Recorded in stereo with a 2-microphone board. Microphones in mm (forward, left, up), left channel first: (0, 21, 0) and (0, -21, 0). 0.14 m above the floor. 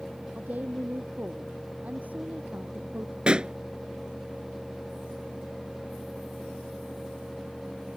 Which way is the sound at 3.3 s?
25° right (ahead or behind).